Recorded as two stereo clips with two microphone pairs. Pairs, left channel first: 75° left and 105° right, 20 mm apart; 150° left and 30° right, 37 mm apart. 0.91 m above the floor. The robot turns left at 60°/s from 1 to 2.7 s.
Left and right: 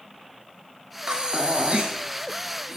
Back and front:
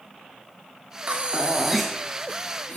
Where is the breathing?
75° right, 1.3 m; by 2.8 s 170° right, 1.3 m.